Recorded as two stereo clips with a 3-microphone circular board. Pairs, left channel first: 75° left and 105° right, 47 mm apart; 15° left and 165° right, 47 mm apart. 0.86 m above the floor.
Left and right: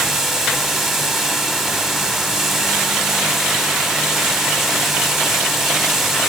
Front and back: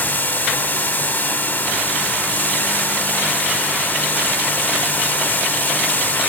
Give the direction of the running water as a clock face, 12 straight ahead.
1 o'clock.